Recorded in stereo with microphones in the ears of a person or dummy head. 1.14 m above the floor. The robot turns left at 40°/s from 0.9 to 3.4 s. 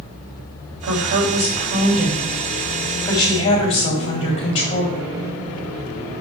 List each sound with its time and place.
0.8 s a woman speaking: 110° right, 2.5 m; by 5.1 s 150° left, 2.5 m